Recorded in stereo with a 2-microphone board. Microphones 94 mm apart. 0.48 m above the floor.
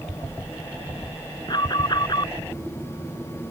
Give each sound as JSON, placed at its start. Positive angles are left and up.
{"t": 1.5, "sound": "an alarm", "side_deg": 50}